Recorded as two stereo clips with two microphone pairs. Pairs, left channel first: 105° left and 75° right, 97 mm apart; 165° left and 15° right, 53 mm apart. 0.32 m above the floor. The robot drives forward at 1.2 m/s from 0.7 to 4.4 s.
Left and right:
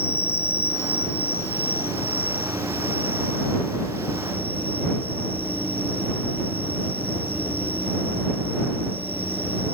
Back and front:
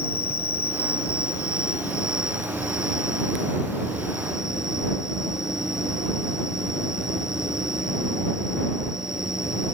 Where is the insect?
165° left; by 9.8 s 175° left.